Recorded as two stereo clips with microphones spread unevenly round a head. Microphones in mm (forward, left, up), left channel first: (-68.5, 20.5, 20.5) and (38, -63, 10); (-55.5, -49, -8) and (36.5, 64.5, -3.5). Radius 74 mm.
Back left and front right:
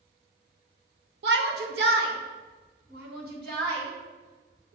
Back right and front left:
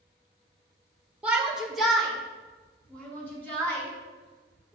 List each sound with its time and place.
1.2 s a shout: 30° right, 1.1 m; by 4.8 s 50° right, 3.5 m